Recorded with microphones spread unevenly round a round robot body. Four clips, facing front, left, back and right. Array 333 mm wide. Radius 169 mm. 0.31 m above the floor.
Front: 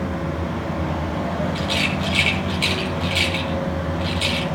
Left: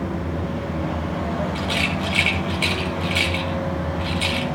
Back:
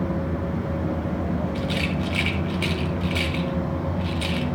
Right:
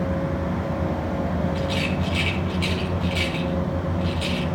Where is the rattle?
105° left, 1.7 m.